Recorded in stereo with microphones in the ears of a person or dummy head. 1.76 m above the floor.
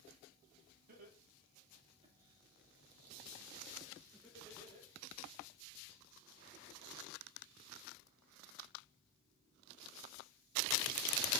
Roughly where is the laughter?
Right.